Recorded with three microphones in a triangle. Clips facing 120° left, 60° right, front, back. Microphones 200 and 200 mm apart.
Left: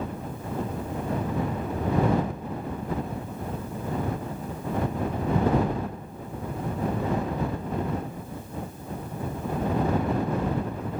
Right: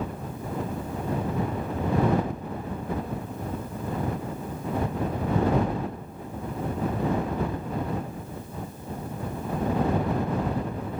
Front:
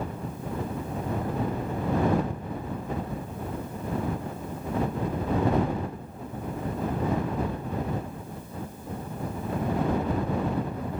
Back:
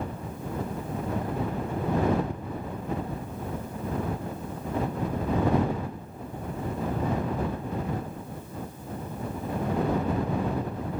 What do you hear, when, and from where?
Only background noise.